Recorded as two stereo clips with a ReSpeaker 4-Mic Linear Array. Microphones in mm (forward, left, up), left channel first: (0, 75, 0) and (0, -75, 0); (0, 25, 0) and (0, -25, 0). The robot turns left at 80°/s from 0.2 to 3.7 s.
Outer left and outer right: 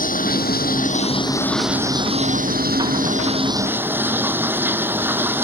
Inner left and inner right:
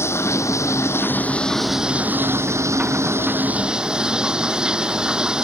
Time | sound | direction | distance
0.0 | running water | 115° left | ?